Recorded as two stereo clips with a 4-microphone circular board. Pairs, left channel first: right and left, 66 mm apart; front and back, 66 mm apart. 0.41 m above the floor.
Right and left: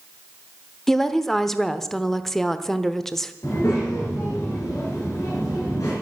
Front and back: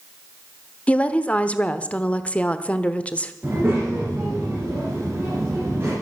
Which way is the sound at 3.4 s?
125° right.